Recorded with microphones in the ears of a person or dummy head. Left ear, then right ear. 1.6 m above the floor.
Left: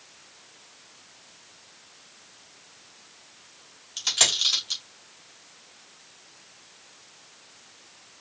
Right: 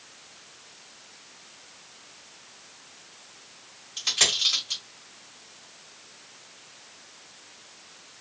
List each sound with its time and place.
4.0 s a dropped coin: 15° left (ahead or behind), 2.5 m